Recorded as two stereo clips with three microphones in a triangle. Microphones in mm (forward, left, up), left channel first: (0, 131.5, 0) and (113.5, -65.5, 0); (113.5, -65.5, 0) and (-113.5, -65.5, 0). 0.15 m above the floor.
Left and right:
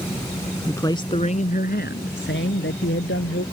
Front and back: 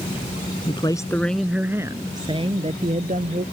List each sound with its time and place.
0.7 s a man speaking: 45° left; by 3.4 s 130° left